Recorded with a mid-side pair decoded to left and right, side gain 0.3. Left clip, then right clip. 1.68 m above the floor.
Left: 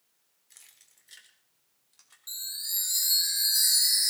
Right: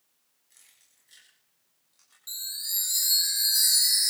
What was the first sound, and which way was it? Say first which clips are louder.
Keys jangling: left 4 dB; 70° left.